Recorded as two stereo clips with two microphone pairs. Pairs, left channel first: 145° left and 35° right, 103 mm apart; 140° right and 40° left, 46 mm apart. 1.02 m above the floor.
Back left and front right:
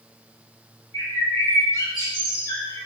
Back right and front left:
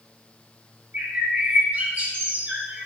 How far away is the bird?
About 1.4 m.